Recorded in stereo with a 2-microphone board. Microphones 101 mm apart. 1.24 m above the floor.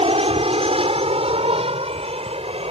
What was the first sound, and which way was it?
An aircraft, 70° right (ahead or behind).